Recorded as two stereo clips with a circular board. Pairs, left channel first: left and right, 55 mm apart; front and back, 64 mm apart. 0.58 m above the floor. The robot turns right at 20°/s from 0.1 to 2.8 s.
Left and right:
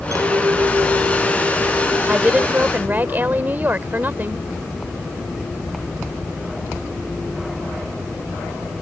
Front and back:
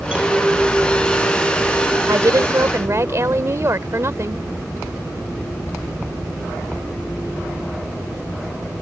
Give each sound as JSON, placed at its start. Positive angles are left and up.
{"t": 0.1, "sound": "a clink", "azimuth_deg": -110}
{"t": 2.1, "sound": "a woman speaking", "azimuth_deg": -155}